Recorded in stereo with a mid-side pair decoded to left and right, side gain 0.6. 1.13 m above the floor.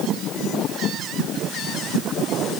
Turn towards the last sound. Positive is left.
No sound to turn to.